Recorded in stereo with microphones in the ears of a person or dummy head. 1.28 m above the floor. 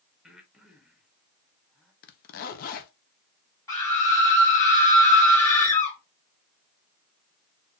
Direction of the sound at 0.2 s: Centre (ahead or behind).